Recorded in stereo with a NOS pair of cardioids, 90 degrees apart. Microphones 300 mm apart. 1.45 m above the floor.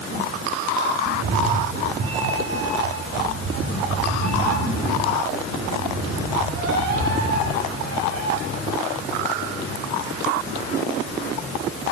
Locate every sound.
1.1 s a cat meowing: 45° right, 5 m; by 8.3 s 55° right, 13.5 m